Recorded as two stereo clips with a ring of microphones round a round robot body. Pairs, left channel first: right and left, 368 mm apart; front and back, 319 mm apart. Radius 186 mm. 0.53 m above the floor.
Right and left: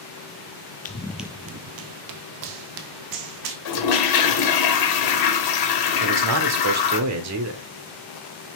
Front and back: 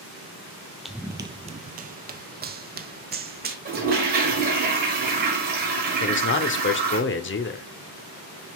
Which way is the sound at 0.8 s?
90° right.